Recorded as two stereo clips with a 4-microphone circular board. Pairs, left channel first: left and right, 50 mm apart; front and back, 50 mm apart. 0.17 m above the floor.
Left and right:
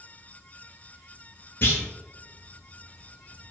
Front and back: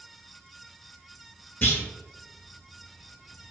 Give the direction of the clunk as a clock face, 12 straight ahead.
10 o'clock.